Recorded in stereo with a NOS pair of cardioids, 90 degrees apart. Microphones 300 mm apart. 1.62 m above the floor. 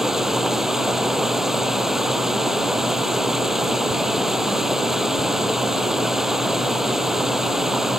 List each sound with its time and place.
0.0 s running water: straight ahead